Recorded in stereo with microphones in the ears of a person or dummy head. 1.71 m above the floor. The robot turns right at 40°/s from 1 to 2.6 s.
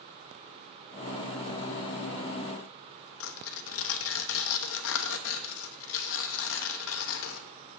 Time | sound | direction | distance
3.2 | tearing paper | 65° left (ahead or behind) | 0.9 m